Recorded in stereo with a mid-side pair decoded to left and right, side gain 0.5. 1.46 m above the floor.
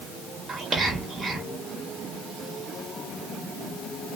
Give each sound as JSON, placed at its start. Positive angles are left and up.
{"t": 0.5, "sound": "whispering", "azimuth_deg": -30, "distance_m": 1.2}